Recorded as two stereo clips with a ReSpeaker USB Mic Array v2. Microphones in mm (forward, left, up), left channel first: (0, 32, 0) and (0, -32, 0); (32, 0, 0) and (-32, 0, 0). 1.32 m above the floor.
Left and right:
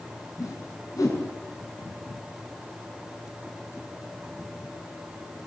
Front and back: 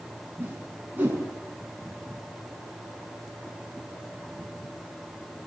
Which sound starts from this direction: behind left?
A whoosh, at 0.4 s.